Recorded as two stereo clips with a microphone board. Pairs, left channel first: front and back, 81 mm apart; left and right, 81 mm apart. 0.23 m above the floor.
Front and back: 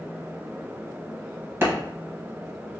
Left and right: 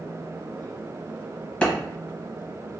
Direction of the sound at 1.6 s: 155° left.